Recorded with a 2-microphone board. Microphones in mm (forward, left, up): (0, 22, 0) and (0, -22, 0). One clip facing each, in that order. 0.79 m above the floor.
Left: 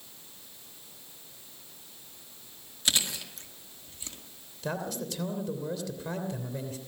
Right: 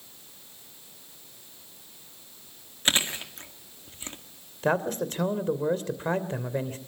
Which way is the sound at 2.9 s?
35° right (ahead or behind).